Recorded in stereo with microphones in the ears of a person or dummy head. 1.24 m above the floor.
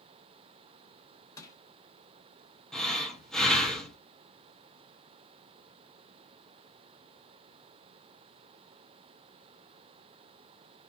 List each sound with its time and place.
1.4 s crushing: 15° left (ahead or behind), 0.9 m
2.7 s breathing: centre (ahead or behind), 0.6 m